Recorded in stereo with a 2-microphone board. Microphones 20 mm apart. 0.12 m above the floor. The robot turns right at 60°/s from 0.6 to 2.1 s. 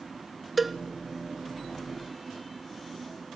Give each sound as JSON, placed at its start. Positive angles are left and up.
{"t": 0.6, "sound": "a cowbell", "side_deg": -5, "distance_m": 0.7}